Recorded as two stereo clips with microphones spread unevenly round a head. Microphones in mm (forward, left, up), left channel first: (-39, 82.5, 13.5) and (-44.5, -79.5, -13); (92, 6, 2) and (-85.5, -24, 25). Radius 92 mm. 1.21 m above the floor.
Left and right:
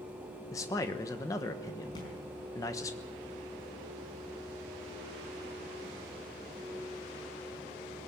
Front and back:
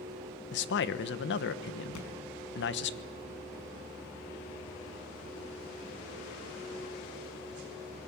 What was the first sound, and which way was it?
A man speaking, 10° left.